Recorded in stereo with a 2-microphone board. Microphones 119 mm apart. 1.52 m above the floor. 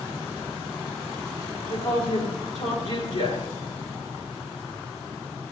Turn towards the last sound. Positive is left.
turn(degrees=85)